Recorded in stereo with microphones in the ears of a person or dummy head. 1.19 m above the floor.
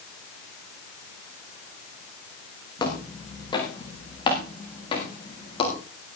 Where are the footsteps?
25° left (ahead or behind), 8 m; by 5.8 s 30° left (ahead or behind), 10 m.